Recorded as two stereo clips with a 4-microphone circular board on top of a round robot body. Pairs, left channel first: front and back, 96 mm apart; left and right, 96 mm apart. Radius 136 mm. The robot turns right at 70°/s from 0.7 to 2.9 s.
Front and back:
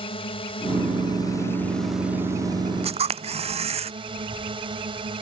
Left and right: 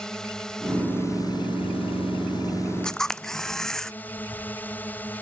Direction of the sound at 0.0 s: 5° left.